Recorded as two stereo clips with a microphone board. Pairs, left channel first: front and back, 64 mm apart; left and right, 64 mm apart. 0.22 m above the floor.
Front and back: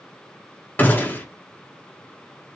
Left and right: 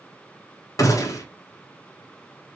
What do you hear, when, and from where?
0.8 s a gunshot: 60° left, 0.7 m